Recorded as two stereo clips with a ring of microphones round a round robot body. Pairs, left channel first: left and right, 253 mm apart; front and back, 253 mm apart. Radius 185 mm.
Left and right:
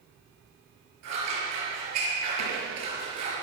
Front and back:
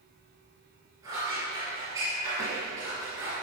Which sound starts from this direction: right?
Scissors, at 1.0 s.